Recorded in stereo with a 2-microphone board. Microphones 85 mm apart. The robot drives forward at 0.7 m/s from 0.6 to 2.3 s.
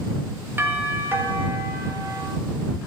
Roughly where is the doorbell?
Right.